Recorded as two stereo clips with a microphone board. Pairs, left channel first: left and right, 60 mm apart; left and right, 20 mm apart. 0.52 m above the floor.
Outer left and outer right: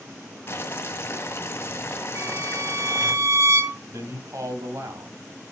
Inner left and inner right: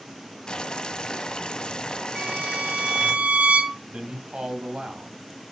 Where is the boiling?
40° left (ahead or behind), 1.5 m.